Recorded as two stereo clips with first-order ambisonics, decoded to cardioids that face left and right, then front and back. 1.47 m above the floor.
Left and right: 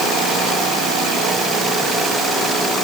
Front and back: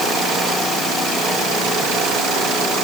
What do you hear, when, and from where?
Only background noise.